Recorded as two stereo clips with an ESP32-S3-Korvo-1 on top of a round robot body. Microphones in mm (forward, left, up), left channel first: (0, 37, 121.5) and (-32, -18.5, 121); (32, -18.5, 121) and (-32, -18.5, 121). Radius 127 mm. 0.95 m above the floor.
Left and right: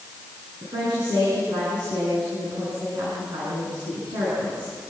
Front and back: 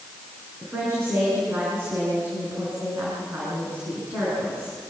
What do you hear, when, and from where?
0.6 s a woman speaking: 125° right, 9.5 m